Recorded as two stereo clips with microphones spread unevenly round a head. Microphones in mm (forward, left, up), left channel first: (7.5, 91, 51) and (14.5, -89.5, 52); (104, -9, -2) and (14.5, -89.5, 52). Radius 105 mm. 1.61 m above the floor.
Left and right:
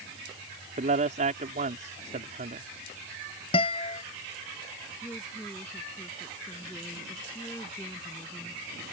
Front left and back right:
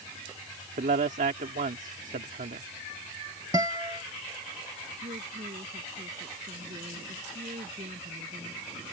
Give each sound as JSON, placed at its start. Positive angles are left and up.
{"t": 0.8, "sound": "a man speaking", "azimuth_deg": -140}
{"t": 3.5, "sound": "a guitar", "azimuth_deg": 155}
{"t": 5.0, "sound": "a woman speaking", "azimuth_deg": 170}